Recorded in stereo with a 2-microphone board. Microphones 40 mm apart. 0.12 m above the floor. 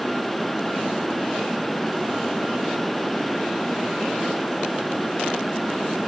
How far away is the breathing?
I don't hear breathing.